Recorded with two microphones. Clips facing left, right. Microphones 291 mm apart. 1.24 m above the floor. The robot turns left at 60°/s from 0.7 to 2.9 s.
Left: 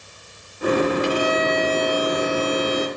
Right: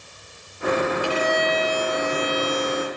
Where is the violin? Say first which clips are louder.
Left 2 dB; 25° left, 0.6 m; by 2.9 s 85° right, 0.6 m.